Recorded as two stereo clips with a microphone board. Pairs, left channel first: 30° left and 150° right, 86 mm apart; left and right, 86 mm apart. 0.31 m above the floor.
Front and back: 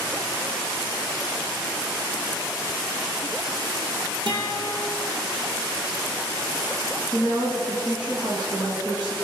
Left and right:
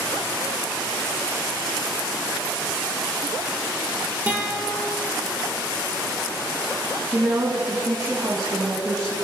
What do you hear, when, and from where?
4.3 s a guitar: 165° right, 4 m
7.1 s a woman speaking: 125° right, 3 m